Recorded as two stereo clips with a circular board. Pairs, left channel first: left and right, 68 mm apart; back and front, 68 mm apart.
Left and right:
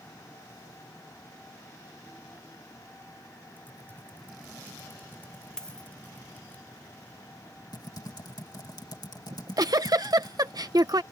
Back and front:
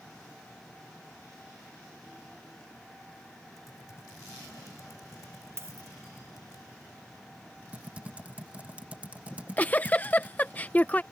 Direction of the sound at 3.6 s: 150° left.